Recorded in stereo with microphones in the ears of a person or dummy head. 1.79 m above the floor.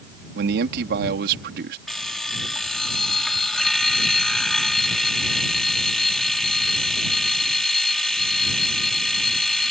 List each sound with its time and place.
0.3 s a man speaking: 55° right (ahead or behind)
1.9 s an alarm clock: 5° left (ahead or behind)